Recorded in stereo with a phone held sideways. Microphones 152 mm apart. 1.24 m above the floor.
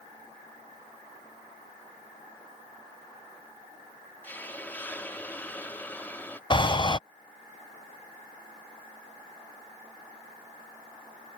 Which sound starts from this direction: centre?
A hiss, at 4.2 s.